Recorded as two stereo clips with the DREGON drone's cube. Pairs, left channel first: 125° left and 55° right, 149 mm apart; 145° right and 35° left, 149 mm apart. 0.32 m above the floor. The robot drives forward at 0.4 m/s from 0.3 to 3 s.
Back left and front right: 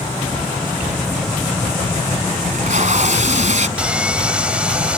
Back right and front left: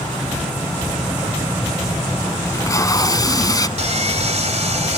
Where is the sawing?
25° left.